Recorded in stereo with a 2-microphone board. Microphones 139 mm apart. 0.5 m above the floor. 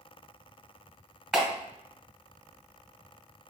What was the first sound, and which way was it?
A clap, 5° right (ahead or behind).